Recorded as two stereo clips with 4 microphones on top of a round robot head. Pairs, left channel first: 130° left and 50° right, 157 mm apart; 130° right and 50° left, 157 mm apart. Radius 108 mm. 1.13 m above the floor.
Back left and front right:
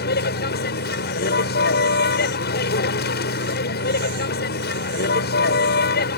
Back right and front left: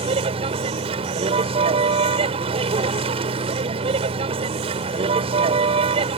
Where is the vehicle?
110° left.